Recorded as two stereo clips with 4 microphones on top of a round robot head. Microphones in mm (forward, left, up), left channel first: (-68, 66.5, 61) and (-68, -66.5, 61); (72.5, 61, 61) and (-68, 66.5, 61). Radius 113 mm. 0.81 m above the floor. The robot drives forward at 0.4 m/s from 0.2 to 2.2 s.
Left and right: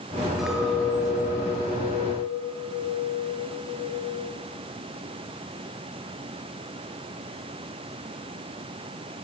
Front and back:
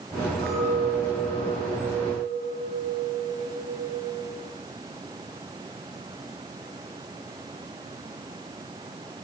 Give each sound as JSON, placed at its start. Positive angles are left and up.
{"t": 0.4, "sound": "a clink", "azimuth_deg": -175, "distance_m": 9.0}